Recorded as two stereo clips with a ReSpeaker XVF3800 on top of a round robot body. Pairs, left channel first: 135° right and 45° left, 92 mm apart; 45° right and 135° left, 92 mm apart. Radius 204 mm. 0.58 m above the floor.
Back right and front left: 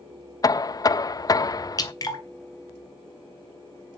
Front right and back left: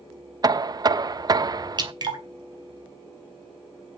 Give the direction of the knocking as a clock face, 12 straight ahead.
6 o'clock.